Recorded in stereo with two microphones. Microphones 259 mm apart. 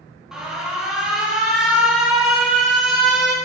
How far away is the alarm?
About 1.0 m.